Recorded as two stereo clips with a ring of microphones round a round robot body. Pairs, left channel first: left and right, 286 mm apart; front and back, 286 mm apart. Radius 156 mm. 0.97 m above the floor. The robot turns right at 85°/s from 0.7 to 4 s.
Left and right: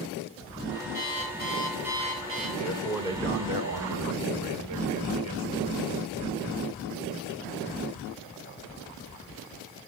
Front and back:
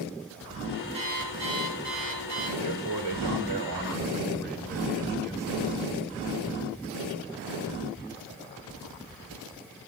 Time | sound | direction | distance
0.9 | an alarm clock | 110° left | 9.5 m
2.6 | a man speaking | 150° left | 3.5 m